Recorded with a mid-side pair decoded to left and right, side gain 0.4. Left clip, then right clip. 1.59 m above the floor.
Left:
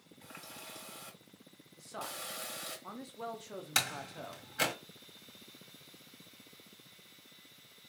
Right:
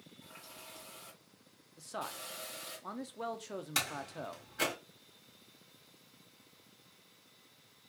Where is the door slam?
40° left, 2 m.